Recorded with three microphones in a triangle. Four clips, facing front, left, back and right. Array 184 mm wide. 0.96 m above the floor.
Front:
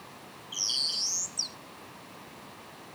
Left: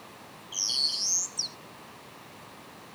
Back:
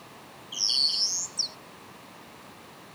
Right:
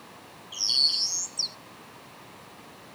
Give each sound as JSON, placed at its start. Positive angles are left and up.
{"t": 0.5, "sound": "a bird", "azimuth_deg": 165}